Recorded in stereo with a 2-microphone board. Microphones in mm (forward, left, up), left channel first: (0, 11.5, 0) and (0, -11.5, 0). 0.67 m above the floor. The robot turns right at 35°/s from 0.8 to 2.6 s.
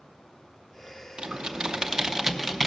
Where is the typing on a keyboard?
50° right (ahead or behind), 0.7 m; by 2.7 s 10° right (ahead or behind), 0.7 m.